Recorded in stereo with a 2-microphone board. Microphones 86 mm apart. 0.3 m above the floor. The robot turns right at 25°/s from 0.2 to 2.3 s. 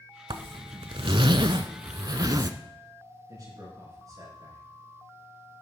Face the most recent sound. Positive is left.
turn(degrees=-45)  # may be behind; listen again after turning